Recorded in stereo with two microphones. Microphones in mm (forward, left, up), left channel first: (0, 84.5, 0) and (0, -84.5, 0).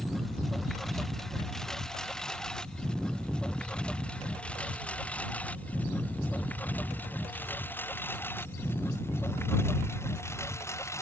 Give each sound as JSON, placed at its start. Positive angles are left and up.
{"t": 0.0, "sound": "a lawn mower", "side_deg": 0}